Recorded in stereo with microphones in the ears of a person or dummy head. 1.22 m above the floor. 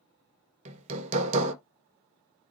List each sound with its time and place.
0.7 s hammering: 35° right (ahead or behind), 1.6 m